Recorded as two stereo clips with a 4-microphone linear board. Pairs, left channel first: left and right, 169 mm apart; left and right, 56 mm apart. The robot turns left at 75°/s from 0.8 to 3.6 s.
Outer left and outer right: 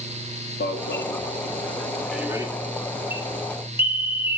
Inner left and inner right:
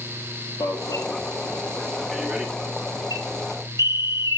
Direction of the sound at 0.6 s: 80° left.